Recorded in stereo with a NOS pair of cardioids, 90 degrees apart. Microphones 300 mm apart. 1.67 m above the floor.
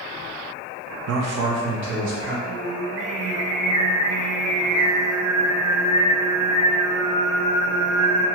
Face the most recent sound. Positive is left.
turn(degrees=-50)